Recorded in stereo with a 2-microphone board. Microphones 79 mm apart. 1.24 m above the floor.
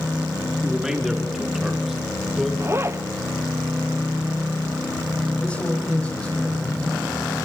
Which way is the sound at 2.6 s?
35° right (ahead or behind).